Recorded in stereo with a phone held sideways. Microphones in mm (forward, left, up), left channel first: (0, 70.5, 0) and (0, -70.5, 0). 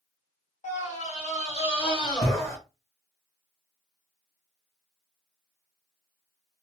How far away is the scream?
About 1.9 m.